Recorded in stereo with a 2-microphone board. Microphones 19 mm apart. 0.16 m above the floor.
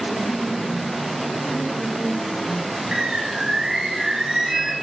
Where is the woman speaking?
5° right (ahead or behind), 4 m.